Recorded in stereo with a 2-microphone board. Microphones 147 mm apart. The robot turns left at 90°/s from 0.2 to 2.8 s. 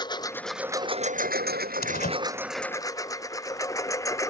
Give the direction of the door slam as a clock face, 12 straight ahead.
9 o'clock.